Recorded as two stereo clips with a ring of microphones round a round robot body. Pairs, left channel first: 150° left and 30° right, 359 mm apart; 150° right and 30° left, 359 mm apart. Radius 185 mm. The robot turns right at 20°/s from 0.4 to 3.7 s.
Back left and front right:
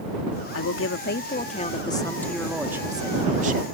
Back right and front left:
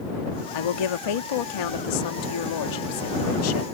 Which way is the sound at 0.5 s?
160° right.